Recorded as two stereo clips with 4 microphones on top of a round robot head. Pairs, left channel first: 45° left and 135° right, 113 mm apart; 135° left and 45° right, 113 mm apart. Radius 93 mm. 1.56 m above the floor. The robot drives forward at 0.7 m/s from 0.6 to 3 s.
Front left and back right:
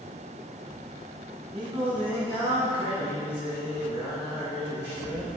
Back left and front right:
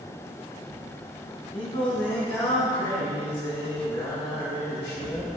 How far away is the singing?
About 0.8 m.